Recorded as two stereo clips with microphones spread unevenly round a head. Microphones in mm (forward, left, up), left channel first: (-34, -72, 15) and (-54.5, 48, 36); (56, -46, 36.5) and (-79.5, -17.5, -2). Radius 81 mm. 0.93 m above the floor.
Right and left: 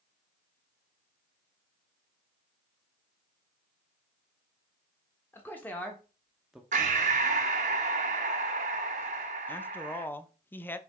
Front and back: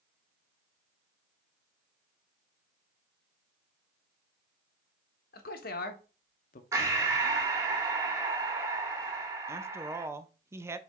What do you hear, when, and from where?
5.3 s a man speaking: 15° right, 1.4 m; by 6.6 s 5° left, 0.9 m
6.7 s breathing: 90° left, 0.9 m
9.5 s a woman speaking: 140° right, 0.8 m